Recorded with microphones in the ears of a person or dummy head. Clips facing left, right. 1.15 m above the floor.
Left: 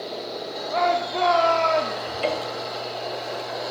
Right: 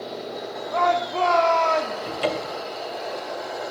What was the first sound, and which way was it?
A shout, 20° left (ahead or behind).